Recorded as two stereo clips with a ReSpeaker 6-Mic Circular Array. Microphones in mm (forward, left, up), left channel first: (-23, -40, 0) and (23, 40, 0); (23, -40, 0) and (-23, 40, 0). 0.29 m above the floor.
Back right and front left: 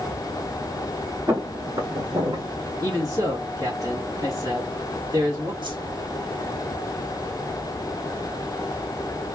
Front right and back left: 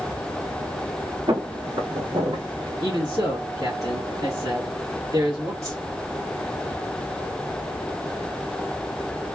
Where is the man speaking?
90° left, 2.0 m.